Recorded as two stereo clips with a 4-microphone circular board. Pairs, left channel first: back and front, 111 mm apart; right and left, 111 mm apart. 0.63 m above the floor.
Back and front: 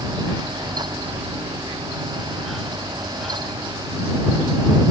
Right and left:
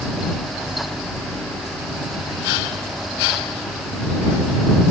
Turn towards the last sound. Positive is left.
No sound to turn to.